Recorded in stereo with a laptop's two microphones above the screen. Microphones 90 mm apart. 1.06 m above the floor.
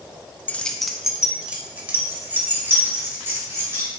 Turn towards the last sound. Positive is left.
turn(degrees=-25)  # may be behind; listen again after turning